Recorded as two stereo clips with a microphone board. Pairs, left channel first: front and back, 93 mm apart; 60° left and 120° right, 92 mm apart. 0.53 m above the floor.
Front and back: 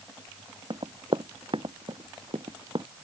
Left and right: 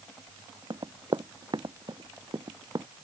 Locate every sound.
0.7 s running footsteps: 160° right